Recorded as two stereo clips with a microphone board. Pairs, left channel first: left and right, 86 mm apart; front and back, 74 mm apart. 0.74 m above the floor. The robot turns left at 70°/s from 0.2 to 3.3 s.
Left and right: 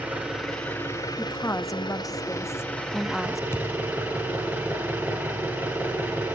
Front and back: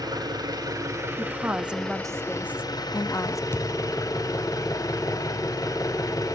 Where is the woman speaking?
145° left, 0.6 m; by 3.4 s straight ahead, 0.6 m.